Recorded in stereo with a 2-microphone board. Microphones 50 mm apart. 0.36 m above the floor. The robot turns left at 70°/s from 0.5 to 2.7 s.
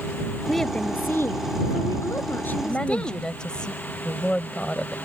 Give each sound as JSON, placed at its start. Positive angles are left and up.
{"t": 0.5, "sound": "a woman speaking", "azimuth_deg": 180}
{"t": 2.5, "sound": "a woman speaking", "side_deg": 25}